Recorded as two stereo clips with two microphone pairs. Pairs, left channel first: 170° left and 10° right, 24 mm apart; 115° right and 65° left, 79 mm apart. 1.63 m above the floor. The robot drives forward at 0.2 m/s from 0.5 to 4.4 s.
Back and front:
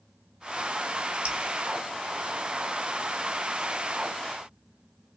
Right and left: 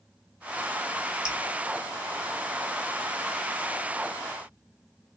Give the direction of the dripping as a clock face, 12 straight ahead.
1 o'clock.